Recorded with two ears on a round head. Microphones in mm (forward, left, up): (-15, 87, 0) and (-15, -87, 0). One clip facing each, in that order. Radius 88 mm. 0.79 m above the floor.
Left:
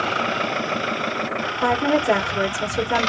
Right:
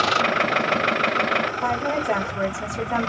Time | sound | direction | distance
1.6 | a woman speaking | 50° left (ahead or behind) | 1.3 m